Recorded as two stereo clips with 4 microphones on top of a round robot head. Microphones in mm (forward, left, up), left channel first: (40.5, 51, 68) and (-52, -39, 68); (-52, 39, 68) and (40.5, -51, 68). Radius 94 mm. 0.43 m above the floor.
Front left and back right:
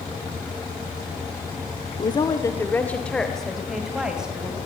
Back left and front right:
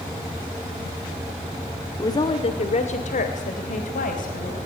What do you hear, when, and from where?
2.0 s a woman speaking: 80° left, 1.3 m; by 4.6 s 145° left, 3.5 m